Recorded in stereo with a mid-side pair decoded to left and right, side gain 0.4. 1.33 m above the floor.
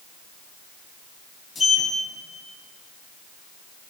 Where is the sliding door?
45° left, 5.5 m.